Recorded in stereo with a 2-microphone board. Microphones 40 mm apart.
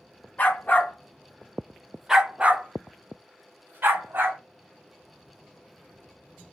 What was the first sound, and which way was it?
A dog barking, 45° left (ahead or behind).